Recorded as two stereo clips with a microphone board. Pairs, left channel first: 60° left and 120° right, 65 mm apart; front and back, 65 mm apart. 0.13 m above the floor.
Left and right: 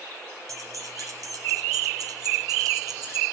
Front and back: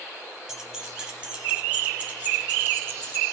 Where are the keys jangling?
100° right, 2.5 m; by 3.2 s 120° right, 3.5 m.